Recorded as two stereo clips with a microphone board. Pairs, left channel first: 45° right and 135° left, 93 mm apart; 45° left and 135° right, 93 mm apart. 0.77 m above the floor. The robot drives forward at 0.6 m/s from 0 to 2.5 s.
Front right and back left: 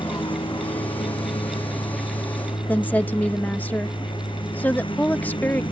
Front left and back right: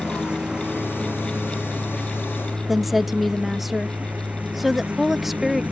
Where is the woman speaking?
50° right.